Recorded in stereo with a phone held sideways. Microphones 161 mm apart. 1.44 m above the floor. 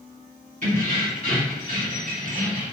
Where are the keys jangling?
55° right (ahead or behind), 1.7 m; by 2.7 s 50° right (ahead or behind), 0.8 m.